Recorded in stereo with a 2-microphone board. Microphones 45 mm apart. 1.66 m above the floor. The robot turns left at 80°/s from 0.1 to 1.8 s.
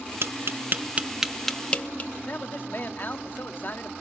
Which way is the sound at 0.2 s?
65° right (ahead or behind).